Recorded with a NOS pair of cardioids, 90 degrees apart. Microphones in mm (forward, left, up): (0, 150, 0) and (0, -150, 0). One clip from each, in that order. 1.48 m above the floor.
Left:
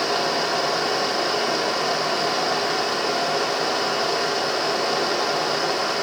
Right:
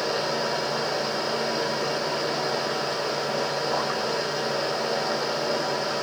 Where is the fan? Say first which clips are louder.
Left 4 dB; 60° left, 1.5 m.